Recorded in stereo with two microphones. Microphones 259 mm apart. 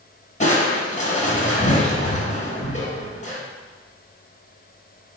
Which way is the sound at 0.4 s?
30° left (ahead or behind).